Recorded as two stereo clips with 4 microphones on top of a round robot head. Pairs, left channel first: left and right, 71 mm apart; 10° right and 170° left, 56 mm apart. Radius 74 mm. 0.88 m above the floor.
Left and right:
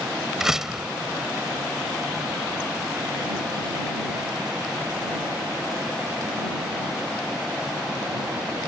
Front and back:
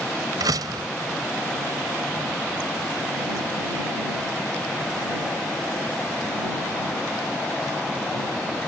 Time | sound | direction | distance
0.4 | a door slam | 175° right | ?